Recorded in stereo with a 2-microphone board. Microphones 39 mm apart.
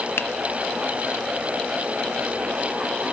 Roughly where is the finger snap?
Left.